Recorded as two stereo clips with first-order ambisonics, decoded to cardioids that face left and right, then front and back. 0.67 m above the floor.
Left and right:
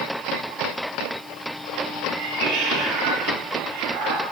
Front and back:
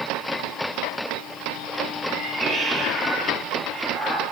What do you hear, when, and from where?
2.1 s a cat meowing: 120° right, 9.5 m